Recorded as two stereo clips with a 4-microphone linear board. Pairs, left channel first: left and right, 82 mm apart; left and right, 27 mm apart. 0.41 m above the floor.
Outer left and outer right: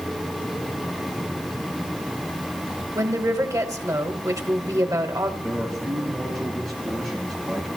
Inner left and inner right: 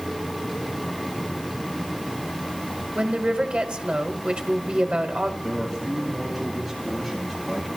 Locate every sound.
3.0 s a woman speaking: 45° right (ahead or behind), 1.4 m
5.4 s a man speaking: 5° left (ahead or behind), 7.5 m